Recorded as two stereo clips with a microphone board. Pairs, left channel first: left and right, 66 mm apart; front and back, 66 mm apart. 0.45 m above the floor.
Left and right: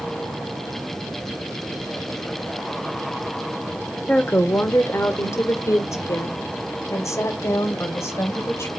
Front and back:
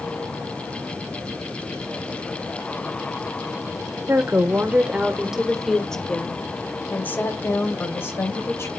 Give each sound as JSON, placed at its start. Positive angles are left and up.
{"t": 4.1, "sound": "a woman speaking", "azimuth_deg": 145, "distance_m": 1.1}